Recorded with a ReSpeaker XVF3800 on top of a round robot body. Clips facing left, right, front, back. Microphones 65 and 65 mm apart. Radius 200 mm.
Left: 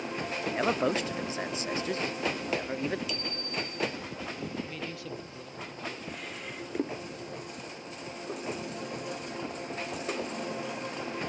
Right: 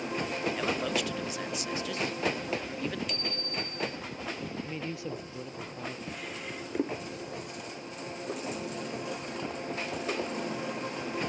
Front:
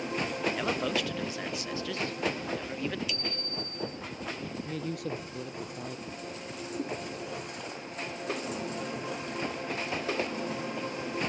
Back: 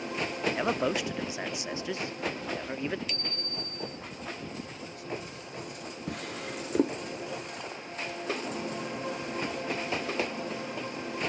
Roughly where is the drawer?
Behind.